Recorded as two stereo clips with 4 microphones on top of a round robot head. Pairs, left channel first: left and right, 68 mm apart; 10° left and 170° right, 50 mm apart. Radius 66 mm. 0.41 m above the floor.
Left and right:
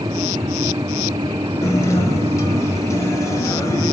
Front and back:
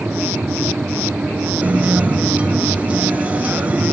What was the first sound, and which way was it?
A guitar, 130° left.